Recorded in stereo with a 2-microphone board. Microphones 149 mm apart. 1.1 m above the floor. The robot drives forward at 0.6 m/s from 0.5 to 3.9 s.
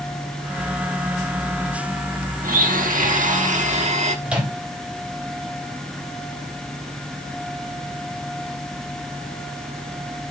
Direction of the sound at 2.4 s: 80° right.